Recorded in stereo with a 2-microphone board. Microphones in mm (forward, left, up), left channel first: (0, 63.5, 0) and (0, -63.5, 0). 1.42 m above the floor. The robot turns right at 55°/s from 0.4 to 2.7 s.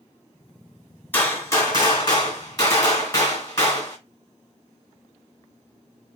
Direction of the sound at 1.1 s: 30° left.